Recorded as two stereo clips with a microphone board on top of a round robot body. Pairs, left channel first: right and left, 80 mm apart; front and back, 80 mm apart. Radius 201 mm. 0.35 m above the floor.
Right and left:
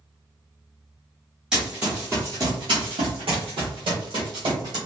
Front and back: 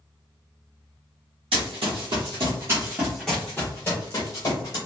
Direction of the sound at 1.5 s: 170° left.